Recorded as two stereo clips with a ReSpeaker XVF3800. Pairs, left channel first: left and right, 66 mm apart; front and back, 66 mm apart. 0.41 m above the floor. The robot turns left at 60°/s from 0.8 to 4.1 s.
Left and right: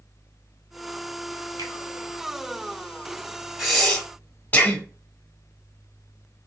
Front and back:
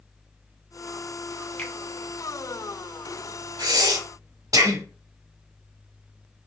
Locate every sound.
1.6 s a finger snap: 70° right, 1.4 m; by 1.7 s 75° right, 1.4 m
3.6 s breathing: 175° right, 1.1 m; by 4.8 s 155° left, 1.1 m